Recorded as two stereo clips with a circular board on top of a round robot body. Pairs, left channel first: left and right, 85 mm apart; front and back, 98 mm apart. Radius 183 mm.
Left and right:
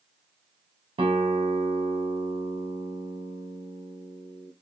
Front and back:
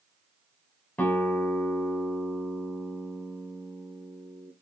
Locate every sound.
1.0 s a guitar: 75° right, 1.2 m